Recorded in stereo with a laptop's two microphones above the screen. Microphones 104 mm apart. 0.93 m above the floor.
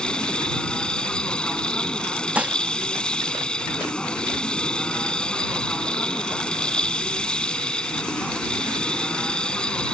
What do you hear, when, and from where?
0.0 s a machine running: 10° left (ahead or behind)
2.4 s dishes clattering: 15° right (ahead or behind)